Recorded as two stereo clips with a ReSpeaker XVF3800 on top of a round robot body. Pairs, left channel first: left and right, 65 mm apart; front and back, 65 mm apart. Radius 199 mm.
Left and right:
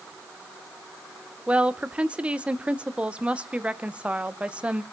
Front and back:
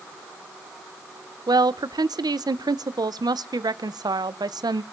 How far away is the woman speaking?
About 0.9 m.